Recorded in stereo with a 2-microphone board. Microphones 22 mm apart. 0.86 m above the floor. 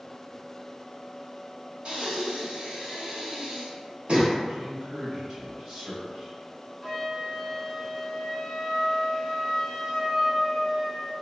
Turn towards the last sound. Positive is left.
turn(degrees=-5)  # may be behind; listen again after turning